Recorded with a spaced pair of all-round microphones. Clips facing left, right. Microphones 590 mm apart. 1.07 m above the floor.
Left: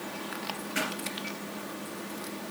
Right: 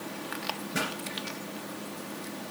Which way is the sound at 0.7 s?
70° right (ahead or behind).